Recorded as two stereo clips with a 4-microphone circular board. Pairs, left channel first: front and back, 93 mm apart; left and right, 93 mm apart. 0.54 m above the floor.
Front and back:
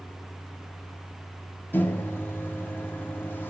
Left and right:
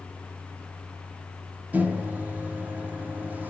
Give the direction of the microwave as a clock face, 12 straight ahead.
1 o'clock.